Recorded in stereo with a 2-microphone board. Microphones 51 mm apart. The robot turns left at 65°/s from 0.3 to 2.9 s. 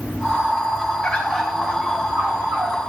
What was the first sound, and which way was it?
A bird, 20° left.